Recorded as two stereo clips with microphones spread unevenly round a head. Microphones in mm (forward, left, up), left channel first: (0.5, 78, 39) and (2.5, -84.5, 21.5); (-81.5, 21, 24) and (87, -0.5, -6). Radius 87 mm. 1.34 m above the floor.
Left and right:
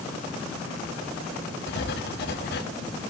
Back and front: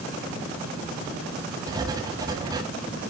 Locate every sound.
1.7 s writing: 60° left, 1.6 m